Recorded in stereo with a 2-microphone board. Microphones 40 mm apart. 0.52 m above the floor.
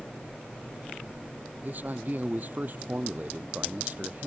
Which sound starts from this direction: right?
A man speaking, at 1.6 s.